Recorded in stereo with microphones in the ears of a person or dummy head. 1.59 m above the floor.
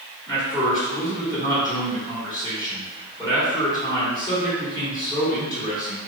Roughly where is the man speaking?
Centre.